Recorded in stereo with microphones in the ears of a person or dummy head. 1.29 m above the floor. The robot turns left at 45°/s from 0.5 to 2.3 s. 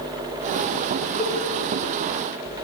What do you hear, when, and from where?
1.2 s a cowbell: 80° left, 6 m; by 1.3 s 90° left, 6 m